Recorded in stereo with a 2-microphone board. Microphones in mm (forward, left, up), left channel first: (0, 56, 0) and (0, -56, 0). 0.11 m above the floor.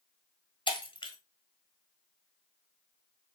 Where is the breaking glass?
45° left (ahead or behind), 0.9 m.